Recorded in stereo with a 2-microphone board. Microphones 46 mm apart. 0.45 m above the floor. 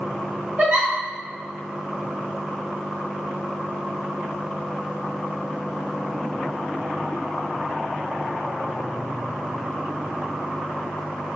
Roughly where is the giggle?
Right.